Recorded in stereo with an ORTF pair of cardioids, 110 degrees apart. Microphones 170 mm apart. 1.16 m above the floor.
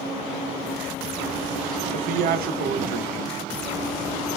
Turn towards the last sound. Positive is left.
turn(degrees=-60)